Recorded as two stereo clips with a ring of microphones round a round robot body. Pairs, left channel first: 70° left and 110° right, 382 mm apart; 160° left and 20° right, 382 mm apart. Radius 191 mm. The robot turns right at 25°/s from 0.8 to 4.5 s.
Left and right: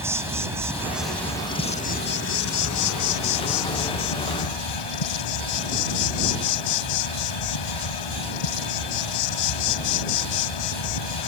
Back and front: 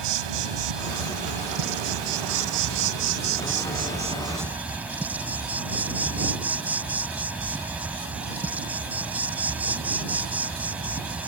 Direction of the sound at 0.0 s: 30° right.